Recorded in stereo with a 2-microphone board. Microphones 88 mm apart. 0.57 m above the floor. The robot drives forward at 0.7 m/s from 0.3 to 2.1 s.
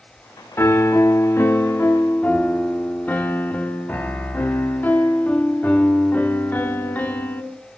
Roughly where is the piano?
Left.